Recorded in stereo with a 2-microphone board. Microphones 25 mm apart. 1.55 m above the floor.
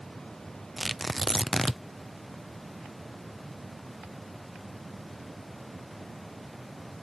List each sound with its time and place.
0.8 s tearing paper: 5° right (ahead or behind)